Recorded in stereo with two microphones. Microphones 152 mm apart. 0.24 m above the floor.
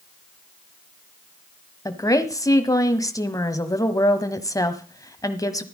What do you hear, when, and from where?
1.9 s a woman speaking: 25° left (ahead or behind), 1.4 m